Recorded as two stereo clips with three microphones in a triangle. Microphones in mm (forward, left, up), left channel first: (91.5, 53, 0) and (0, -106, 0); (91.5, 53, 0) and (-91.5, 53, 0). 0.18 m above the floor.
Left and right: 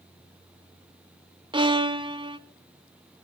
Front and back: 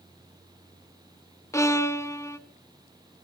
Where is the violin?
65° right, 0.6 m.